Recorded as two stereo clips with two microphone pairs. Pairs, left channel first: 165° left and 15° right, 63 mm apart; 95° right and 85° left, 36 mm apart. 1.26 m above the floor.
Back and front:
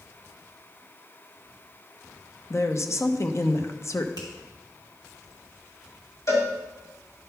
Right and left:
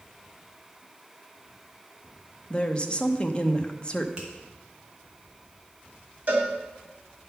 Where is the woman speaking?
150° right, 0.8 m.